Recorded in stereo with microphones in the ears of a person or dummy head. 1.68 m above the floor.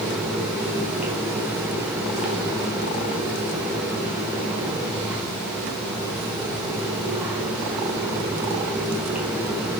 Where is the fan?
5° right (ahead or behind), 1.4 m.